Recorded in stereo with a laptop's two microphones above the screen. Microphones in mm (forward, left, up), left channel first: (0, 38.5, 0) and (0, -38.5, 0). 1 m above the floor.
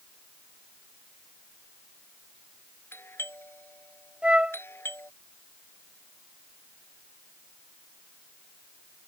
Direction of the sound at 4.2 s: 15° right (ahead or behind).